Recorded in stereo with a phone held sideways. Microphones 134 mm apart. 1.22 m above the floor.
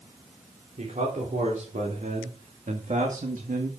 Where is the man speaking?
70° right (ahead or behind), 3.5 m; by 3.7 s 80° right, 1.5 m.